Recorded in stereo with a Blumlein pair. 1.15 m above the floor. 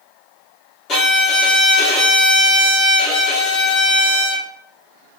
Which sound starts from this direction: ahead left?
A violin, at 0.9 s.